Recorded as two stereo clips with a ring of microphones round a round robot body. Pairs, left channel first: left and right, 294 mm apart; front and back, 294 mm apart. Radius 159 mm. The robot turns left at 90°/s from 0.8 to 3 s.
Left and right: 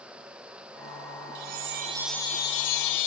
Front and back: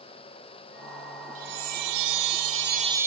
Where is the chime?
115° right, 1.6 m; by 3.1 s 100° left, 1.6 m.